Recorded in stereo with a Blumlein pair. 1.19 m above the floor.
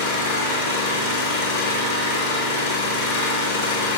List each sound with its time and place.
0.0 s an engine running: 60° left, 1.4 m